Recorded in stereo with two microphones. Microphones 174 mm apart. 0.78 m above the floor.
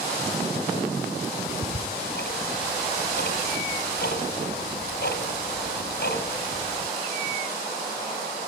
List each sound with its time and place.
1.5 s ticking: 75° left (ahead or behind), 2 m